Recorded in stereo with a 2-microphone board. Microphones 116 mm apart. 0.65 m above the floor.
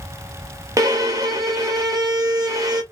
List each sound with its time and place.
0.8 s a violin: 30° right (ahead or behind), 0.6 m